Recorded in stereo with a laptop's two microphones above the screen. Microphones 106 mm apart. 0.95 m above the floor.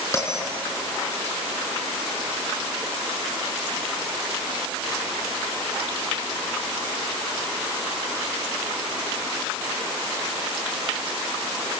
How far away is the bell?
About 4.5 m.